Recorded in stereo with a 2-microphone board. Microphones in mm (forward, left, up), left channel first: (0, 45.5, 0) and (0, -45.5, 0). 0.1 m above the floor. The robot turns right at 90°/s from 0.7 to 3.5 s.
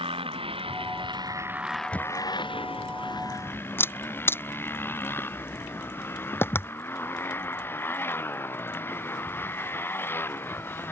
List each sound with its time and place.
0.0 s a motorcycle: 95° right; by 10.9 s 155° left
1.9 s a camera shutter: 15° left (ahead or behind); by 6.7 s 25° left (ahead or behind)